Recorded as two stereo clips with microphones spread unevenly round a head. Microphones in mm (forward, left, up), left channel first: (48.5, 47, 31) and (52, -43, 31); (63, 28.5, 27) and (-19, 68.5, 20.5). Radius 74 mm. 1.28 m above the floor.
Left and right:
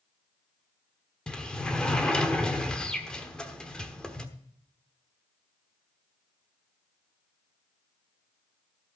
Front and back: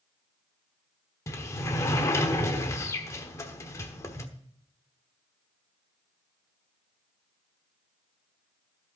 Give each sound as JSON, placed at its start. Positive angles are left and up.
{"t": 1.3, "sound": "a sliding door", "azimuth_deg": 15, "distance_m": 1.1}